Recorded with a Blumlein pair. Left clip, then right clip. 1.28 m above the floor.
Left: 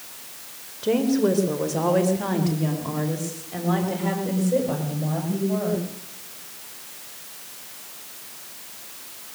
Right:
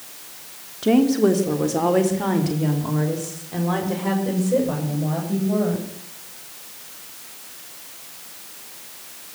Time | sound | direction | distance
0.8 | a woman speaking | 40° right | 3.5 m